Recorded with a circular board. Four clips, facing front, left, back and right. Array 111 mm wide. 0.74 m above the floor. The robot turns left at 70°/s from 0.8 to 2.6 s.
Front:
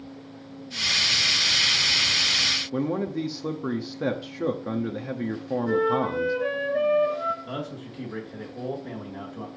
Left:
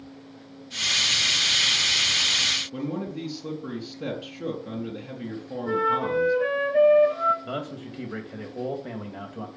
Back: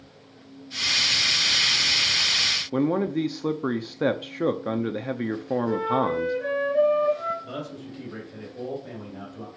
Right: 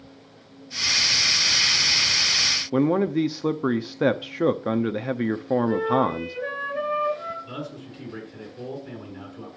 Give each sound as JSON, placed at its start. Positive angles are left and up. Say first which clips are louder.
{"t": 2.7, "sound": "a man speaking", "louder": "right 12 dB, back 4 dB", "azimuth_deg": -110, "distance_m": 0.7}
{"t": 5.7, "sound": "a flute", "louder": "left 1 dB, front 2 dB", "azimuth_deg": 80, "distance_m": 4.5}
{"t": 7.4, "sound": "a man speaking", "louder": "left 3 dB, front 1 dB", "azimuth_deg": 85, "distance_m": 3.5}